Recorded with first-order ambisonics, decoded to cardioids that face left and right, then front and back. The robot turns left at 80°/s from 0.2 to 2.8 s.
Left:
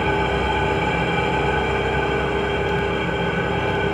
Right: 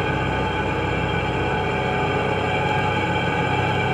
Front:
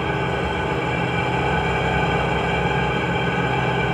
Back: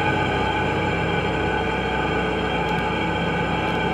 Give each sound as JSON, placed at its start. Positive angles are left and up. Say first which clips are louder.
{"t": 0.0, "sound": "an engine running", "louder": "left 2 dB, back 2 dB", "azimuth_deg": 150, "distance_m": 1.7}